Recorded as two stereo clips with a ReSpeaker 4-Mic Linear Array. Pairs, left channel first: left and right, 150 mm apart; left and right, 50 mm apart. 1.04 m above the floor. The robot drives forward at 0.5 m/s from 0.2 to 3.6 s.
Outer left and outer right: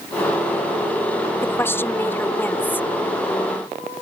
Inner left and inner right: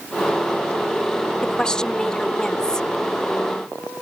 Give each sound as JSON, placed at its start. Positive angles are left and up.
{"t": 1.4, "sound": "a woman speaking", "side_deg": 15}